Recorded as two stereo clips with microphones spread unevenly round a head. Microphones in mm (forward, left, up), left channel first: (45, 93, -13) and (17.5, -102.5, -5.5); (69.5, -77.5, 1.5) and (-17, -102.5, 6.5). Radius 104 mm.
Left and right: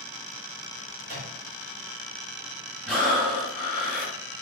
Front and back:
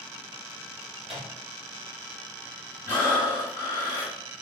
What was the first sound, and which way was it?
A microwave, 150° right.